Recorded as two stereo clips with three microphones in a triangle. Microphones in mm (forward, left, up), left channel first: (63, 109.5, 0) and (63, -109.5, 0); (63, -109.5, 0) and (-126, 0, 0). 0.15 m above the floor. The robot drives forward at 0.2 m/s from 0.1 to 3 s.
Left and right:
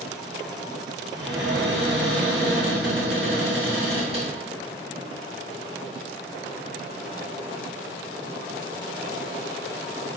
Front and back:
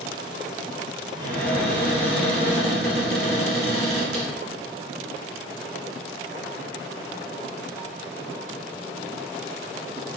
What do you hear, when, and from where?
1.2 s a cupboard door: straight behind, 1.9 m